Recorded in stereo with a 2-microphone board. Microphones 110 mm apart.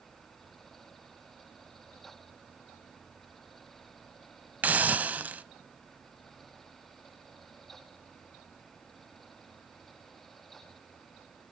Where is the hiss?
15° right (ahead or behind), 0.9 m.